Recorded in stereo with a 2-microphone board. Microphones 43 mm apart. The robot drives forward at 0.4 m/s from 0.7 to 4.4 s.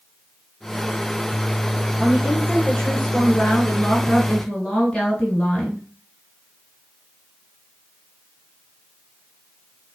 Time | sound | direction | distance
2.0 | a woman speaking | 20° left (ahead or behind) | 2.0 m